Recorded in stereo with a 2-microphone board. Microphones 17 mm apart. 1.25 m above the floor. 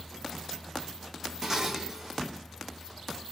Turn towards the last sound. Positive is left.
turn(degrees=-30)  # may be behind; listen again after turning